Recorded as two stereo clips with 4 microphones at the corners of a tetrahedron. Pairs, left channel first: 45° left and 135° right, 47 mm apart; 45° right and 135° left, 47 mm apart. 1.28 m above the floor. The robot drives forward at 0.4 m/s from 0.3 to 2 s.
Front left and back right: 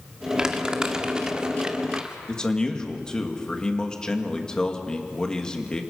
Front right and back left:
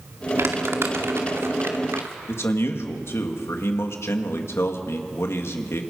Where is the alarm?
I don't hear an alarm.